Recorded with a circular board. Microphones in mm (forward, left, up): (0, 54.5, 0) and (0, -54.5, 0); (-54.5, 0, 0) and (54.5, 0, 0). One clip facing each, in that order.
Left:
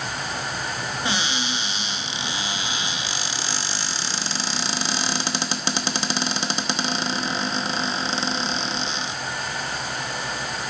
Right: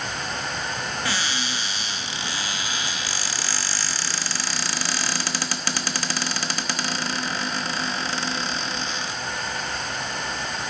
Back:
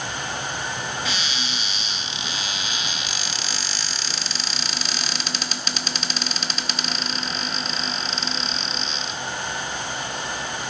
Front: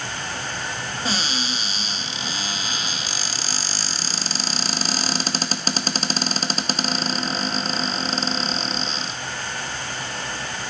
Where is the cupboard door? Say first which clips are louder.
Left 4 dB, front 3 dB; 30° left, 0.9 m.